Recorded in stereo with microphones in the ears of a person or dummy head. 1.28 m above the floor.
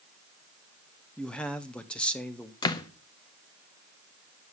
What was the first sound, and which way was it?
A man speaking, 10° left (ahead or behind).